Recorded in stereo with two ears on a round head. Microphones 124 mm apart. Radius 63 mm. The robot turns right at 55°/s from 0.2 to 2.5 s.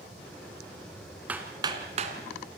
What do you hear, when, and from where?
1.3 s hammering: 10° right (ahead or behind), 2.5 m; by 2.2 s 60° right (ahead or behind), 2.5 m